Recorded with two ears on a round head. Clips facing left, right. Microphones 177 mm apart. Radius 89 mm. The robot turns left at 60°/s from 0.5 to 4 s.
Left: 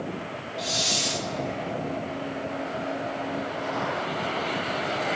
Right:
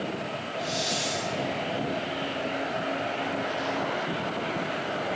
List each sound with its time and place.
0.6 s a hiss: 90° left, 0.8 m; by 1.3 s 50° left, 0.8 m